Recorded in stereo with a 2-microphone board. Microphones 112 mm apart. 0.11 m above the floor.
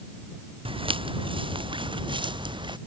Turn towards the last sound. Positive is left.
turn(degrees=-45)  # may be behind; listen again after turning